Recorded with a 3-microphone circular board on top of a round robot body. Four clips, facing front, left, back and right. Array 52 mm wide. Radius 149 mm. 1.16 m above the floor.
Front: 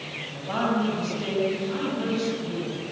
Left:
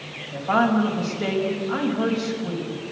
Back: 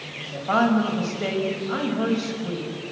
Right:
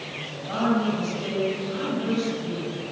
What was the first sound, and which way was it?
A woman speaking, 140° left.